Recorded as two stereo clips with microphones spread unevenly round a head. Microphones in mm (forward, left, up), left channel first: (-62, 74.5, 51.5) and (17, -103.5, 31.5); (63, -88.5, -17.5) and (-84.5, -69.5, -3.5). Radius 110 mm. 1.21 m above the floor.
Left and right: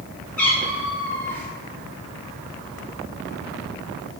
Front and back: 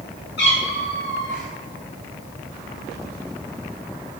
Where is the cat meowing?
35° left, 5.5 m.